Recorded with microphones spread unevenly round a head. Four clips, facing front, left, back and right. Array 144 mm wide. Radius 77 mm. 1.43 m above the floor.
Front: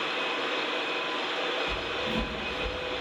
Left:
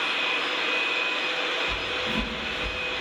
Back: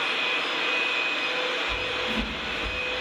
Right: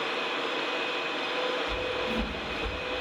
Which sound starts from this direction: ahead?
Footsteps, at 1.7 s.